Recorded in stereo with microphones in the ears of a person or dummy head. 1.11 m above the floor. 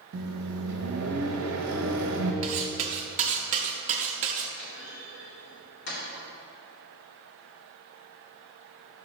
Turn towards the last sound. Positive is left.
turn(degrees=55)  # may be behind; listen again after turning